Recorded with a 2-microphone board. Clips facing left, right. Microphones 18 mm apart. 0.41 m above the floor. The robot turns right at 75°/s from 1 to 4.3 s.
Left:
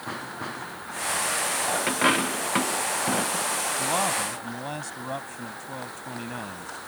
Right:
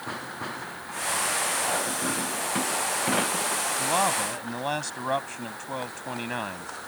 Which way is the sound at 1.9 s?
75° left (ahead or behind).